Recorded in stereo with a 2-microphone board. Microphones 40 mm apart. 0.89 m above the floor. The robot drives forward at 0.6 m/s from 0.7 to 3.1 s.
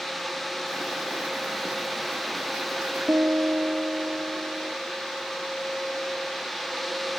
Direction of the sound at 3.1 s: 60° right (ahead or behind).